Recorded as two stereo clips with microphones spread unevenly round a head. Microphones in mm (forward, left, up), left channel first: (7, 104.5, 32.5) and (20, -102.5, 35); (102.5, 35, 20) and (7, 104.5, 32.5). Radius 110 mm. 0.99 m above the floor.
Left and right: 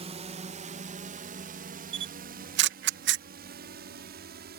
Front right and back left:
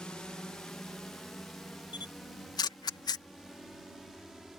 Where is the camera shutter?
80° right.